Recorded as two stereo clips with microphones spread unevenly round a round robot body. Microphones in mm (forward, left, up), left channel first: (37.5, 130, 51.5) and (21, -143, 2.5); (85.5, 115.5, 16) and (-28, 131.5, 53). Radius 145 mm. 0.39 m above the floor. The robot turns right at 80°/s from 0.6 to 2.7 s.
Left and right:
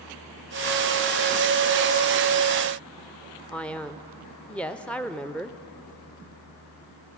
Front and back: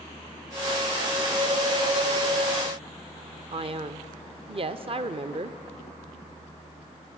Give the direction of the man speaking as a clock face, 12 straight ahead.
6 o'clock.